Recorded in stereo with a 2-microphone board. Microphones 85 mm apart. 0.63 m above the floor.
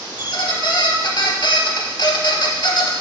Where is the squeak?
65° left (ahead or behind), 0.7 m.